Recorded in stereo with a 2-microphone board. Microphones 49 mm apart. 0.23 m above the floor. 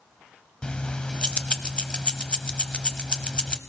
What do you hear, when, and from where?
0.6 s keys jangling: 20° left (ahead or behind), 0.7 m